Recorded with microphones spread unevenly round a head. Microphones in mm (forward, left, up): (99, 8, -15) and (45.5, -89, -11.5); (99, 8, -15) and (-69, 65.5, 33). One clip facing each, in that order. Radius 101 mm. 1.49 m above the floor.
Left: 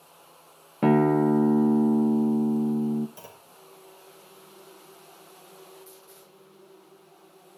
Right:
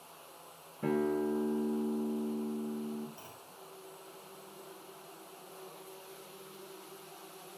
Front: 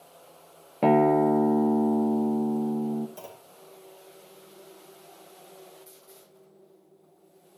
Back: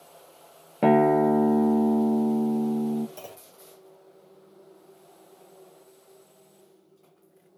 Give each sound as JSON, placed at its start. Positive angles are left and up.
{"t": 0.8, "sound": "a guitar", "azimuth_deg": 70, "distance_m": 0.5}
{"t": 3.2, "sound": "a clunk", "azimuth_deg": 65, "distance_m": 1.8}